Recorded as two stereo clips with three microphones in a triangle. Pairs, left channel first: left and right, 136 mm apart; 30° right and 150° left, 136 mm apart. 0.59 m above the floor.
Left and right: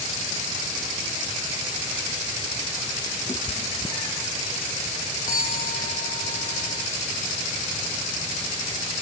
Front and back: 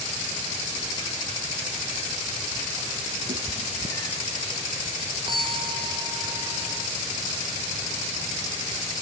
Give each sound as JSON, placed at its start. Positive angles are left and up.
{"t": 3.3, "sound": "a cat meowing", "azimuth_deg": 150}
{"t": 5.3, "sound": "a bell", "azimuth_deg": 95}